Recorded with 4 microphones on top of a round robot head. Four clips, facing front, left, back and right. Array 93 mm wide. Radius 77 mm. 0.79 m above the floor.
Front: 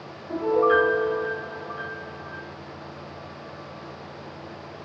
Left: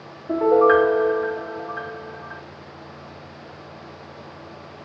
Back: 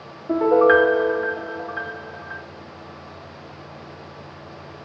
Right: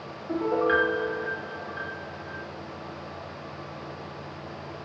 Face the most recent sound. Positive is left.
turn(degrees=150)